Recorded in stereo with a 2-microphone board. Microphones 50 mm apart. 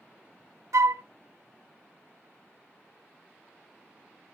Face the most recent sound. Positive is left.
turn(degrees=-85)